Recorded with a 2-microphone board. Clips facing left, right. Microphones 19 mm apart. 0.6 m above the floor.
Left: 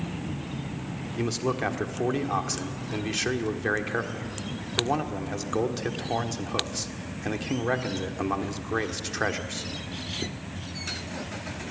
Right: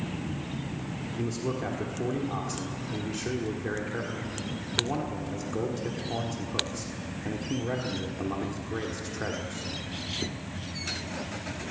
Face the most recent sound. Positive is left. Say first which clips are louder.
# left 5 dB
turn(degrees=45)  # may be behind; listen again after turning